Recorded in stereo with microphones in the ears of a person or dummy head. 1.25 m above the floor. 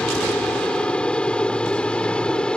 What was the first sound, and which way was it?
An aircraft, 5° left (ahead or behind).